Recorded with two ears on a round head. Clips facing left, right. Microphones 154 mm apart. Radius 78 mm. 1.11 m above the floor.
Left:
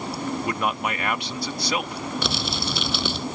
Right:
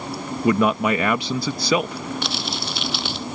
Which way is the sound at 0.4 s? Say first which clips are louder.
Right 12 dB; 70° right (ahead or behind).